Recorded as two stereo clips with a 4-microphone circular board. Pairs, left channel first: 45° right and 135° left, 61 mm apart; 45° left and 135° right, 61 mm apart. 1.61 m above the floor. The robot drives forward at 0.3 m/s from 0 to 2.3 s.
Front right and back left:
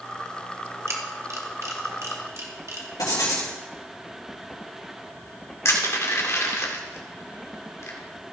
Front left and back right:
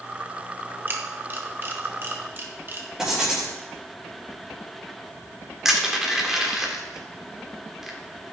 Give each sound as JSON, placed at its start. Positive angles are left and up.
{"t": 0.9, "sound": "a camera shutter", "azimuth_deg": 170, "distance_m": 1.1}
{"t": 3.0, "sound": "writing", "azimuth_deg": -50, "distance_m": 3.5}
{"t": 5.7, "sound": "crushing", "azimuth_deg": -55, "distance_m": 1.7}